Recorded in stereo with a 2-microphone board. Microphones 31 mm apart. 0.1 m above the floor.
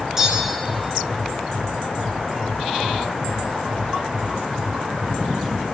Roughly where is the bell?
Centre.